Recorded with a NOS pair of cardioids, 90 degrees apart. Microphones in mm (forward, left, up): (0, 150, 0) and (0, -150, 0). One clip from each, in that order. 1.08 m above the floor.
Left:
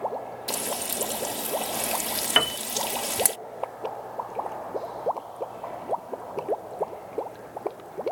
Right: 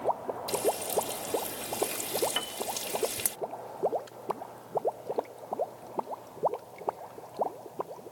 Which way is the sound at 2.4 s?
60° left.